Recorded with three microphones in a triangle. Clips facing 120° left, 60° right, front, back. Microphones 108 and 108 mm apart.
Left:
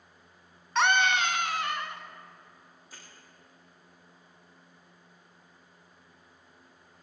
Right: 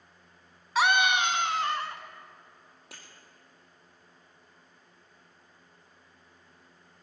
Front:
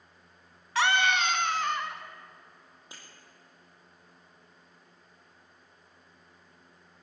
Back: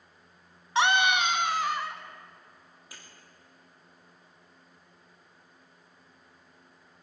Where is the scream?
140° right, 1.1 m; by 2.0 s 90° right, 1.4 m.